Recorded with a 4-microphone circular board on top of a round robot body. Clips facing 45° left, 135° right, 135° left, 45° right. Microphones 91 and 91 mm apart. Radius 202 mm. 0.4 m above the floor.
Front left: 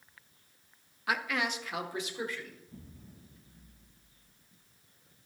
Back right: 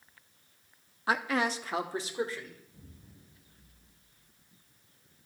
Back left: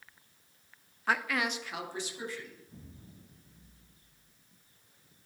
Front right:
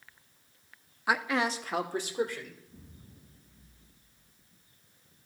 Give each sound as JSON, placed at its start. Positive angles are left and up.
{"t": 1.1, "sound": "a man speaking", "azimuth_deg": -120, "distance_m": 1.0}
{"t": 2.7, "sound": "an explosion", "azimuth_deg": 90, "distance_m": 3.0}